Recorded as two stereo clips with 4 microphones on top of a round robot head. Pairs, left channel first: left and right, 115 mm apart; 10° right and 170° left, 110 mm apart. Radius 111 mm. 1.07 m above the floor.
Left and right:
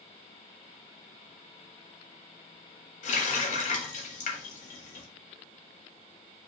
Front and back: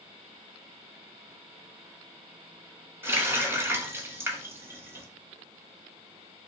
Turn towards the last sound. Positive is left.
turn(degrees=100)